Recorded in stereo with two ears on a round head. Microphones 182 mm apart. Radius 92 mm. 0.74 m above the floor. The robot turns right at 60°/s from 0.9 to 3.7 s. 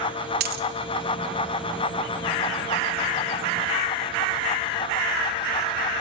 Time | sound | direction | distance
0.4 | a dropped coin | 50° right (ahead or behind) | 1.1 m